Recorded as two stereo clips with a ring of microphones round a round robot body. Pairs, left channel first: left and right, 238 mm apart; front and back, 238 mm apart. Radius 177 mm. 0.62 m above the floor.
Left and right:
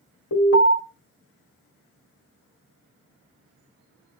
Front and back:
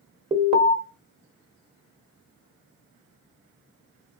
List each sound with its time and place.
0.3 s an alarm: 115° left, 1.3 m